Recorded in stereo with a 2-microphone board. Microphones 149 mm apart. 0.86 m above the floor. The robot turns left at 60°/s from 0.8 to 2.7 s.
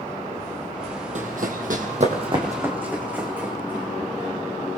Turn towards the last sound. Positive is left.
turn(degrees=-10)  # may be behind; listen again after turning